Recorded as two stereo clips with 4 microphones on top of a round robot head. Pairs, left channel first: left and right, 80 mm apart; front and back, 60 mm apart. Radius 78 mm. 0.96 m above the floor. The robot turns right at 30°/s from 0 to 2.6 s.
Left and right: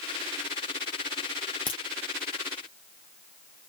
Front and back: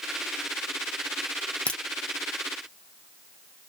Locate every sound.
1.7 s a crack: 65° left, 0.6 m